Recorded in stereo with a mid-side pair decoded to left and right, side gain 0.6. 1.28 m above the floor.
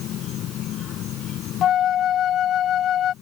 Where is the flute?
50° left.